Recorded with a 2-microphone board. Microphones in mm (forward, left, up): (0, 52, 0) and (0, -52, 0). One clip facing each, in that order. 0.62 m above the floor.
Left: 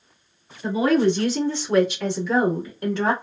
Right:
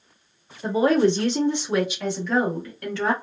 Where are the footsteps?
I don't hear footsteps.